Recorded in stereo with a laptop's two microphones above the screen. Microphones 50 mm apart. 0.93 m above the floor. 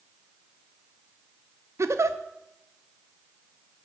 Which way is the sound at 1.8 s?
70° right (ahead or behind).